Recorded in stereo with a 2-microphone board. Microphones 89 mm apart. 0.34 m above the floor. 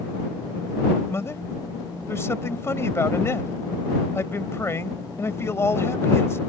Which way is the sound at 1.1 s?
30° left (ahead or behind).